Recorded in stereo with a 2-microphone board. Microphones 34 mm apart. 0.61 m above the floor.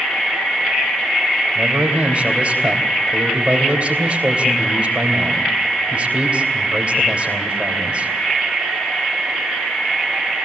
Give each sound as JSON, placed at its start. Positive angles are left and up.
{"t": 1.6, "sound": "a man speaking", "side_deg": -35, "distance_m": 3.5}